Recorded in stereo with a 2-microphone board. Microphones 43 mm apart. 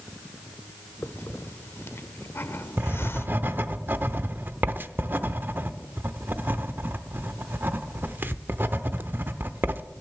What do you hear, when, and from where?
1.0 s a hiss: 65° left (ahead or behind), 0.6 m
2.8 s writing: 50° right (ahead or behind), 0.7 m